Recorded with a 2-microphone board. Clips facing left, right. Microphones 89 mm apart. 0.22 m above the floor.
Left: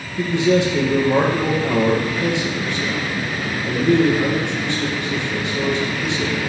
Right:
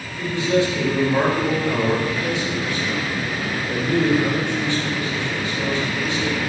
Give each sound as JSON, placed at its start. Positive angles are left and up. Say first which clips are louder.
{"t": 0.2, "sound": "a man speaking", "louder": "left 3 dB", "side_deg": 70, "distance_m": 3.5}